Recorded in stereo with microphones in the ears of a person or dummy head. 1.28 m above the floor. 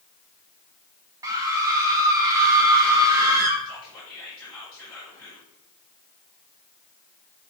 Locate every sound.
1.2 s a scream: 15° right (ahead or behind), 1.0 m
3.6 s whispering: 5° left (ahead or behind), 4.5 m